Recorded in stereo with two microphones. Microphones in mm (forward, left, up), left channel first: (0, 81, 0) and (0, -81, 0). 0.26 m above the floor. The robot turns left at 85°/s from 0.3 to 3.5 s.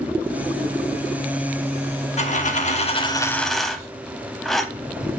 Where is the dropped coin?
115° left, 0.6 m; by 4.7 s straight ahead, 0.6 m.